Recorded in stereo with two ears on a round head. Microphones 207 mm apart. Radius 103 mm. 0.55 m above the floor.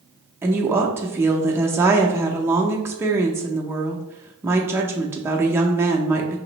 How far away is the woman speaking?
About 0.6 m.